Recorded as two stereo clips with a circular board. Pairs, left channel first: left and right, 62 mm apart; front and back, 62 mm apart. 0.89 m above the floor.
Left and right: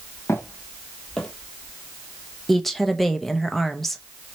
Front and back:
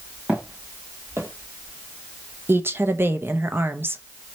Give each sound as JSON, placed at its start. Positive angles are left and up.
{"t": 0.3, "sound": "footsteps", "azimuth_deg": 120, "distance_m": 1.8}
{"t": 2.5, "sound": "a woman speaking", "azimuth_deg": 175, "distance_m": 0.6}